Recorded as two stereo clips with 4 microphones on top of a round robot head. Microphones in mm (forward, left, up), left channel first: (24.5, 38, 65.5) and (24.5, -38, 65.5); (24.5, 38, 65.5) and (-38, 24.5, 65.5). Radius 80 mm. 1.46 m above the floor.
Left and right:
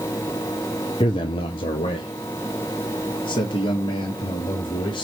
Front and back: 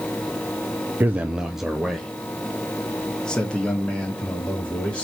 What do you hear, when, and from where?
1.0 s a man speaking: 130° left, 0.5 m; by 5.0 s 85° left, 3 m